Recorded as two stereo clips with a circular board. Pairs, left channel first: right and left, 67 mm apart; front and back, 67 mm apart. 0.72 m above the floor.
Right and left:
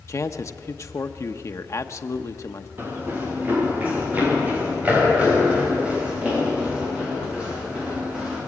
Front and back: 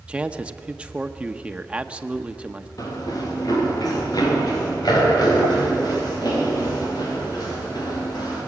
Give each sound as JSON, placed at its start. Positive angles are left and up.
{"t": 0.1, "sound": "a man speaking", "azimuth_deg": -115, "distance_m": 0.9}
{"t": 2.8, "sound": "running footsteps", "azimuth_deg": 30, "distance_m": 5.5}